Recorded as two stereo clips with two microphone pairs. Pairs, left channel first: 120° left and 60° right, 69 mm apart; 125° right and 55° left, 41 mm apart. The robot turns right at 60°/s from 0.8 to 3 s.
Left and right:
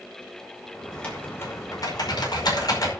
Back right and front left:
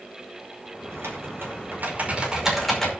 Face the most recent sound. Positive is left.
turn(degrees=165)